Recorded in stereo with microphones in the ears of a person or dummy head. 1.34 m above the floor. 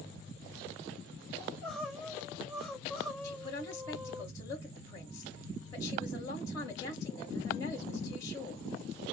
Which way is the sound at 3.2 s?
20° left (ahead or behind).